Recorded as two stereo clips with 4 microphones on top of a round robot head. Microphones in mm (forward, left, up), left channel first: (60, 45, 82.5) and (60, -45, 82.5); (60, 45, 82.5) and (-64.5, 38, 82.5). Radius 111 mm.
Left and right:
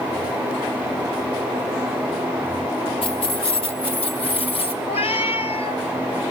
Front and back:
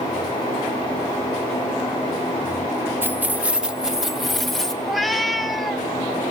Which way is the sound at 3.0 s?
110° left.